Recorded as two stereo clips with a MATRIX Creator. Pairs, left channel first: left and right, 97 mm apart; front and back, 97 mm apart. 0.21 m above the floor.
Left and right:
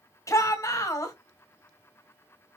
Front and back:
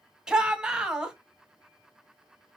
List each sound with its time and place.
0.3 s a shout: 105° left, 1.2 m